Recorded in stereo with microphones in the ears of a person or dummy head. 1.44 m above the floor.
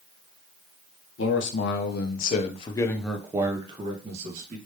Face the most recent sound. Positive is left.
turn(degrees=-45)  # may be behind; listen again after turning